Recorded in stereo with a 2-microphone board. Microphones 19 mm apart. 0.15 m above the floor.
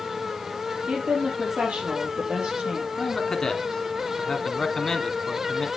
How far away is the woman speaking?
About 3.5 m.